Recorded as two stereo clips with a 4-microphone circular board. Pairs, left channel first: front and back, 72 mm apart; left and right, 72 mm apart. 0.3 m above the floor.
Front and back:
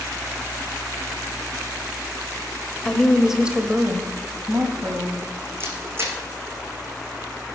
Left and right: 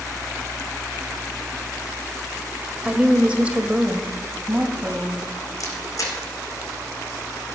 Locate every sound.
2.9 s a woman speaking: 55° right, 1.0 m; by 5.2 s 165° right, 1.9 m
5.6 s a camera shutter: 125° left, 3 m